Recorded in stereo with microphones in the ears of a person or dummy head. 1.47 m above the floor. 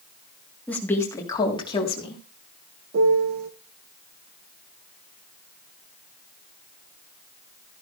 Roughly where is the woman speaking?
Centre.